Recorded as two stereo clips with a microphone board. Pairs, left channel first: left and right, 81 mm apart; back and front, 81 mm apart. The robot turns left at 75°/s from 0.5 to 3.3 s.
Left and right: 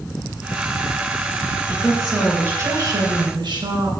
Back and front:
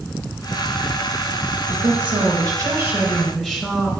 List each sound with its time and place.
1.7 s a woman speaking: 20° left, 3 m; by 4.0 s 100° right, 3 m